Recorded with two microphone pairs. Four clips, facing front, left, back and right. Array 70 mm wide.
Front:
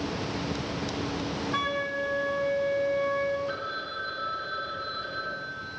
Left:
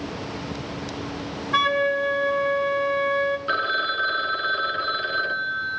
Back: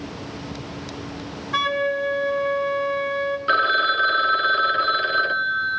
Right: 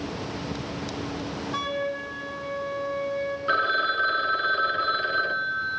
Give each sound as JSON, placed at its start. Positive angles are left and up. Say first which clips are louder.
{"t": 1.5, "sound": "a flute", "louder": "left 10 dB, back 10 dB", "azimuth_deg": 110, "distance_m": 2.5}
{"t": 3.5, "sound": "a phone ringing", "louder": "even, back 15 dB", "azimuth_deg": -160, "distance_m": 1.4}